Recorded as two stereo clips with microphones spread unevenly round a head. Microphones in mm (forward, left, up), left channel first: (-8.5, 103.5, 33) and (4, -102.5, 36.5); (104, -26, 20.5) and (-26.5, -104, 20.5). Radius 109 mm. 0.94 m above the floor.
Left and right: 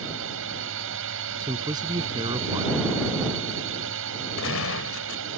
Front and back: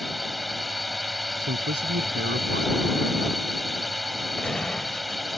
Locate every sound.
0.0 s a drone: 60° right
1.4 s a man speaking: 160° right
4.4 s a gunshot: 115° left